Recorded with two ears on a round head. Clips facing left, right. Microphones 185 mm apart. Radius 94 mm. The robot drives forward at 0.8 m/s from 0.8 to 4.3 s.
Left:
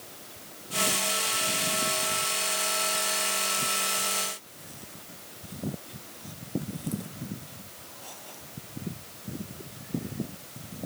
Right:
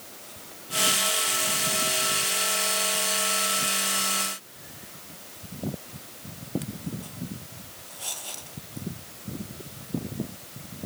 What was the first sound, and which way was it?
Only background noise.